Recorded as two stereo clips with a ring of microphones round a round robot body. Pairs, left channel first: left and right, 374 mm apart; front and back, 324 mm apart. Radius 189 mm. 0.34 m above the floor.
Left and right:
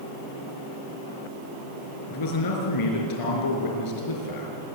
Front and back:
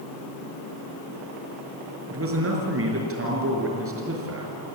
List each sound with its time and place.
2.1 s a man speaking: 130° left, 5 m